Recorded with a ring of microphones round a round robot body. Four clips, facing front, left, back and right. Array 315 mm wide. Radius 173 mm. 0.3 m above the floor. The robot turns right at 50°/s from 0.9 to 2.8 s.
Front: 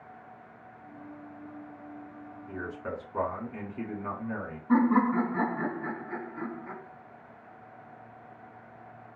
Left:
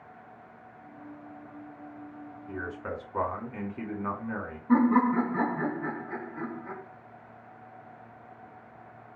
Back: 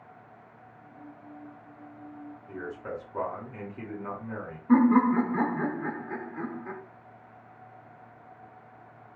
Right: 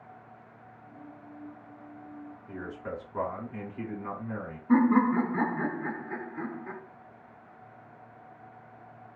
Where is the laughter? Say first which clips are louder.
Even, back 3 dB; straight behind, 1.4 m.